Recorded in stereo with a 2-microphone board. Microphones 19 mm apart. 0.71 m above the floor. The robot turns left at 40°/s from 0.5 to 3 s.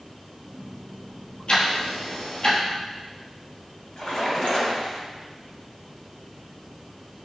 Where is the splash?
70° left (ahead or behind), 3 m.